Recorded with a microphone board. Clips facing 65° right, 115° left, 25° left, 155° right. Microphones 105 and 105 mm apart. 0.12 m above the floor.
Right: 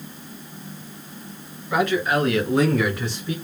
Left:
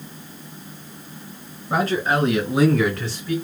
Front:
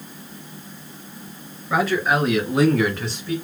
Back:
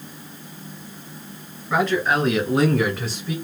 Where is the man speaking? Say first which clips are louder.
Even, even; 100° left, 2.0 m; by 3.4 s 80° right, 1.7 m.